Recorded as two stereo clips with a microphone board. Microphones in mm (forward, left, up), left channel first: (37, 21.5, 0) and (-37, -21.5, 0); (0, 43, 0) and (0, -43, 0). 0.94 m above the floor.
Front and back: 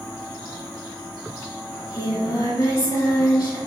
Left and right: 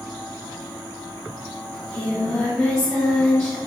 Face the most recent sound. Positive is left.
turn(degrees=10)